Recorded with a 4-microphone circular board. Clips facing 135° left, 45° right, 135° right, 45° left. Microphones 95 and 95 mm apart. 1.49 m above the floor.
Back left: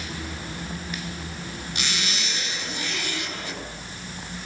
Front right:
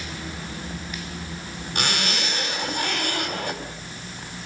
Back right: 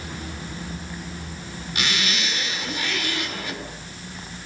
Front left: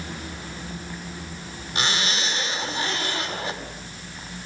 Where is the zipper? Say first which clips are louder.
Front right 6 dB, front left 1 dB; 10° right, 4 m.